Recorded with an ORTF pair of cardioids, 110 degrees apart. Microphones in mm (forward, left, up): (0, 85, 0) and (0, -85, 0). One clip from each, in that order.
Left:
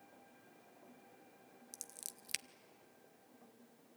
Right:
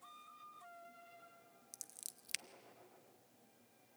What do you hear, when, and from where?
1.7 s scissors: 10° left, 0.5 m